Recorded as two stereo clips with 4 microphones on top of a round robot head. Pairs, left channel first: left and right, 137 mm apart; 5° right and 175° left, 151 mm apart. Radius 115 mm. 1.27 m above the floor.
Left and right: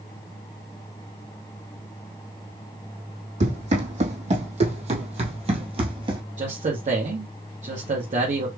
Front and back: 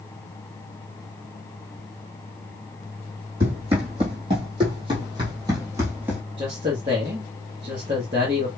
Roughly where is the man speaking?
Behind right.